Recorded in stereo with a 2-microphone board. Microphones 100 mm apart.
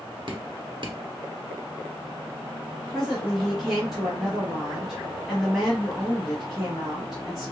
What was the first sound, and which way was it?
Dripping, 55° right (ahead or behind).